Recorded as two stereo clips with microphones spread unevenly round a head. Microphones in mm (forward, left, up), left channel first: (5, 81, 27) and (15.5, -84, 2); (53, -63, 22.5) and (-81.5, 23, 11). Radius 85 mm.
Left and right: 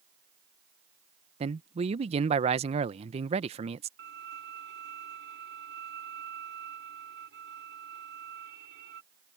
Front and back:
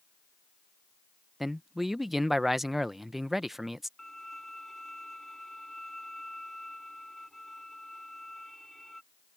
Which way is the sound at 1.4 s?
125° right.